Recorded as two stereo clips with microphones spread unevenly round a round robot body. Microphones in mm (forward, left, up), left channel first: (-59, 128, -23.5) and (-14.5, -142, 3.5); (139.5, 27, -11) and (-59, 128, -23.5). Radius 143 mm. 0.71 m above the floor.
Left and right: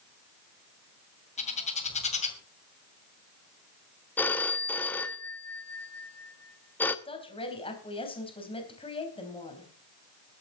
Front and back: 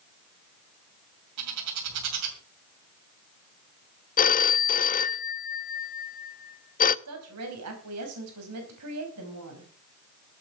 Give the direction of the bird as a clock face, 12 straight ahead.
7 o'clock.